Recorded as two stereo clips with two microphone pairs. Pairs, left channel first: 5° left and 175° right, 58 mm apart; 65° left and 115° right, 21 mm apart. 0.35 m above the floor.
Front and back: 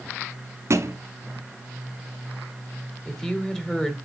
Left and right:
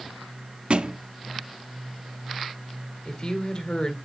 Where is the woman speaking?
80° left, 1.9 m.